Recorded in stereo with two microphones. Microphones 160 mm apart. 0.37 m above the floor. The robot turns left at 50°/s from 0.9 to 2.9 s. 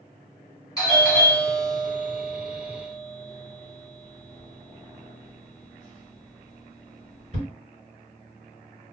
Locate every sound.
0.8 s a doorbell: 20° left (ahead or behind), 1.9 m; by 7.5 s 45° right (ahead or behind), 1.9 m